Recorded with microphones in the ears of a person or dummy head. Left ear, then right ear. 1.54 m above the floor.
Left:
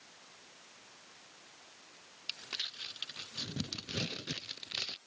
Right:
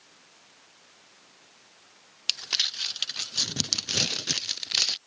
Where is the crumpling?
35° right (ahead or behind).